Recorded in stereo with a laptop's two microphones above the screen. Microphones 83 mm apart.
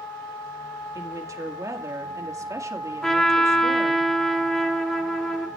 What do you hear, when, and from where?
0.9 s a woman speaking: 40° right (ahead or behind), 2.0 m
3.0 s a trumpet: 5° left (ahead or behind), 0.9 m